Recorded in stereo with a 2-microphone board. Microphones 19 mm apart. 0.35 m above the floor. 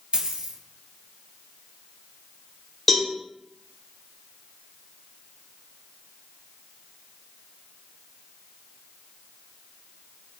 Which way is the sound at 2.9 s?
15° left (ahead or behind).